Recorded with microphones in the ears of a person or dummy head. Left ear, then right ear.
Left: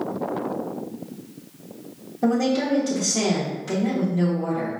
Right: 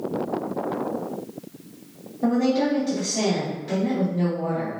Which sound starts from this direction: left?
A woman speaking, at 2.2 s.